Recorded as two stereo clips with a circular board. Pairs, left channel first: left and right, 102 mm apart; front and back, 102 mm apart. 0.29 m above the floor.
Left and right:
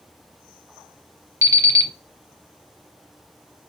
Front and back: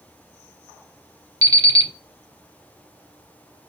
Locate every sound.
1.4 s an alarm clock: 140° right, 0.6 m